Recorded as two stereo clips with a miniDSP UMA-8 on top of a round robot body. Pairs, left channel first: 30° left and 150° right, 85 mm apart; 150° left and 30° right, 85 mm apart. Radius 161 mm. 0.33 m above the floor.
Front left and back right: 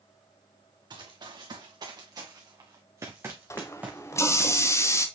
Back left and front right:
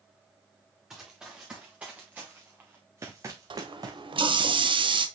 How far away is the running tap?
About 1.3 m.